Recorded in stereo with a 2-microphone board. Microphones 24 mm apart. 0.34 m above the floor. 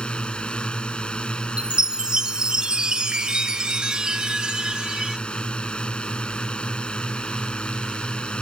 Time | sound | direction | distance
0.0 | a drone | 45° left (ahead or behind) | ?
1.6 | a chime | 40° right (ahead or behind) | ?